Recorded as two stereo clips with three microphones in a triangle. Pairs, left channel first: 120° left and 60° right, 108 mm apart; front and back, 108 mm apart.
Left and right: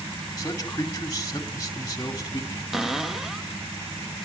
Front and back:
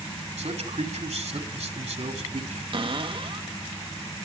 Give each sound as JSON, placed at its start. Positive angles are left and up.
{"t": 0.4, "sound": "a man speaking", "azimuth_deg": 180, "distance_m": 2.5}
{"t": 2.7, "sound": "a cupboard door", "azimuth_deg": -145, "distance_m": 0.9}